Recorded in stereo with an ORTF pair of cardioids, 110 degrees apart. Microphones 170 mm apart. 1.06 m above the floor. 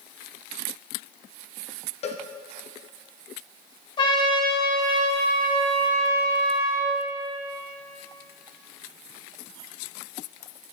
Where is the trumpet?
30° left, 2.5 m.